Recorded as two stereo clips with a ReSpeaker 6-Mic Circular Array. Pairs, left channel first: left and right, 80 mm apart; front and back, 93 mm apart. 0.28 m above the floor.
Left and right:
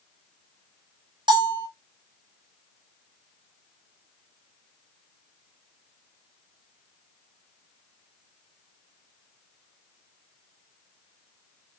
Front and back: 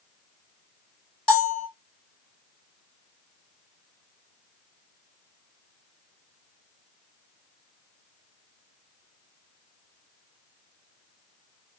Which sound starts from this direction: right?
A bell, at 1.3 s.